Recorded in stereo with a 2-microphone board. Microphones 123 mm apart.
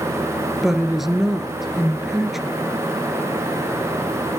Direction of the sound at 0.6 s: Centre (ahead or behind).